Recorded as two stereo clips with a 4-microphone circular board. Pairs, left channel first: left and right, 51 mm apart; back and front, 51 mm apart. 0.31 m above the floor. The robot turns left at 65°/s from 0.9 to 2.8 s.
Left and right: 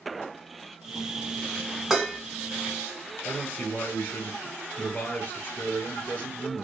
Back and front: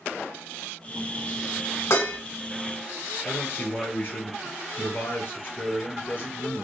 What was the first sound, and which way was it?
Dishes clattering, 175° right.